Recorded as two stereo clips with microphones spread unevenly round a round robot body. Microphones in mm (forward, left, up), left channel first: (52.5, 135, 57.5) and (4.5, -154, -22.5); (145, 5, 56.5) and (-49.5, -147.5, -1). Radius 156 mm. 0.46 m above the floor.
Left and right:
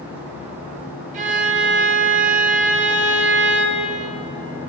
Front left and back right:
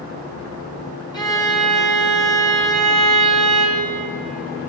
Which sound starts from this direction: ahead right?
A violin, at 1.1 s.